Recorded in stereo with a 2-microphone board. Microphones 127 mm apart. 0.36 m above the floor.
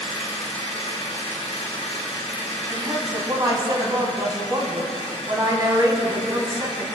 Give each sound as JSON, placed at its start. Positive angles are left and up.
{"t": 0.0, "sound": "an engine running", "side_deg": 55, "distance_m": 3.0}
{"t": 2.7, "sound": "a woman speaking", "side_deg": -30, "distance_m": 2.0}